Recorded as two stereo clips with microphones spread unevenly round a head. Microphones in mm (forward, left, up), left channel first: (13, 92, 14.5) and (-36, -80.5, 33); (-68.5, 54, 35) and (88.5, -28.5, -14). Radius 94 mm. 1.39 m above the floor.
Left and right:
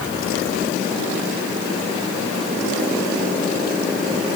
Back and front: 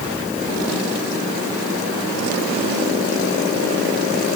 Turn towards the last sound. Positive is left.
No sound to turn to.